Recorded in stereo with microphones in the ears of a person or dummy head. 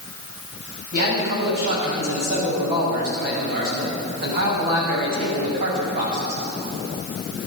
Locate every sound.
0.9 s a man speaking: 55° right (ahead or behind), 6 m